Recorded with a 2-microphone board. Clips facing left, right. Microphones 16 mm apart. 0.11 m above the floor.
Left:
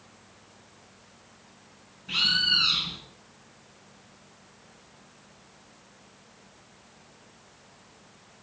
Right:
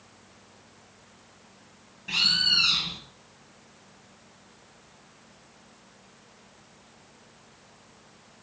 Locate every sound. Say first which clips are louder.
2.1 s a bird: right 1 dB; 60° right (ahead or behind), 5 m